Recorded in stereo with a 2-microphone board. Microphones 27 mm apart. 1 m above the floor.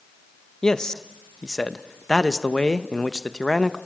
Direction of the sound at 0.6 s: 25° left (ahead or behind).